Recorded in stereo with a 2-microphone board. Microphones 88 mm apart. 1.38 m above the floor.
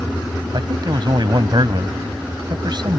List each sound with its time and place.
0.5 s a man speaking: 55° right (ahead or behind)